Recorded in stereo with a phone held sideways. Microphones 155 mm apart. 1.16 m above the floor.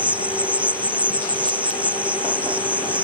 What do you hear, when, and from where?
0.0 s an insect: 10° right (ahead or behind)